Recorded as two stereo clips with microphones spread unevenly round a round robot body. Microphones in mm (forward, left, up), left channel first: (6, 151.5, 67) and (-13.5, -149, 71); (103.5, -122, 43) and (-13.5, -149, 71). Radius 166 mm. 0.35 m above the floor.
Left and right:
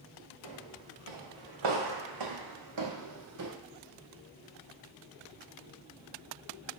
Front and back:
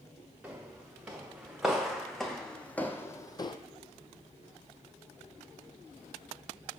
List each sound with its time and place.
0.4 s footsteps: 90° right, 2.5 m; by 3.6 s 45° right, 0.8 m